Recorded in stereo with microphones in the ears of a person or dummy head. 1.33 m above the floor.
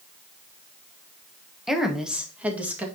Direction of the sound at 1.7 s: Centre (ahead or behind).